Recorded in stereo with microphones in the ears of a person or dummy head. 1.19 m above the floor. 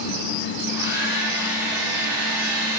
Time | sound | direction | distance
0.6 | a hair dryer | 5° right (ahead or behind) | 3 m